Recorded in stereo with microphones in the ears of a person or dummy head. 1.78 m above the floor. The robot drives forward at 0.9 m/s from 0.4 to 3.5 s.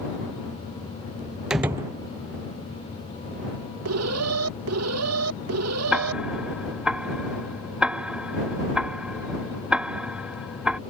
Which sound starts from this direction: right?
An alarm, at 3.9 s.